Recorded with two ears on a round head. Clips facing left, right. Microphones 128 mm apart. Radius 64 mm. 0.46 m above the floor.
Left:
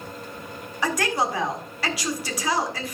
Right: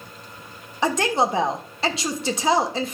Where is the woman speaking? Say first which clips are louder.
Right 4 dB; 20° right (ahead or behind), 1.5 m.